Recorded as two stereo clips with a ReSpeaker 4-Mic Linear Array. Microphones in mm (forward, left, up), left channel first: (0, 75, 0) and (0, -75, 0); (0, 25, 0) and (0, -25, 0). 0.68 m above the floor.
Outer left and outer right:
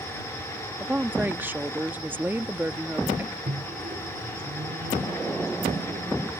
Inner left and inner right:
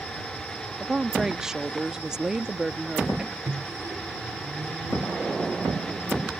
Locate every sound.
0.8 s a woman speaking: 10° right (ahead or behind)
3.5 s a microwave: 65° right (ahead or behind)